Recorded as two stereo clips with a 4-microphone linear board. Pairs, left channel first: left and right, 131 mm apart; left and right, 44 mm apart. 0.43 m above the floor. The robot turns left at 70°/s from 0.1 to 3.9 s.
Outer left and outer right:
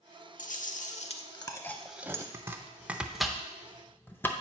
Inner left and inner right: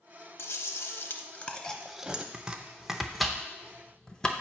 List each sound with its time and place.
0.4 s chewing: 105° left, 0.5 m; by 2.2 s 25° right, 0.5 m
2.3 s chopping: 20° right (ahead or behind), 0.5 m; by 4.3 s 15° left (ahead or behind), 0.5 m